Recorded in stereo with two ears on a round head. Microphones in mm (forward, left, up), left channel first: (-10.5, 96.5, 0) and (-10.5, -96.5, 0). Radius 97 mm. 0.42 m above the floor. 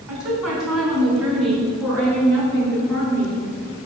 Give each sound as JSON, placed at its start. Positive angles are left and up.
{"t": 0.1, "sound": "a woman speaking", "side_deg": -5, "distance_m": 4.0}